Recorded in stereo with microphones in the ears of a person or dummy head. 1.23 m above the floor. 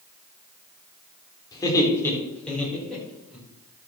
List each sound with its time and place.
1.5 s laughter: 20° left (ahead or behind), 4 m; by 3.4 s 5° right (ahead or behind), 5.5 m